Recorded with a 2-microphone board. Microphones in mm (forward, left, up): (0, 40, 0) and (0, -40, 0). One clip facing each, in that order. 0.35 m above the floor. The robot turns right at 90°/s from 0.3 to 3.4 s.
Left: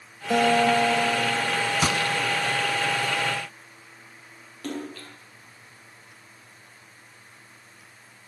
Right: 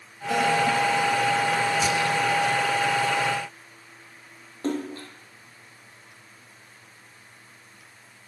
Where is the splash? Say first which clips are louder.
Right 5 dB; 30° right (ahead or behind), 6 m.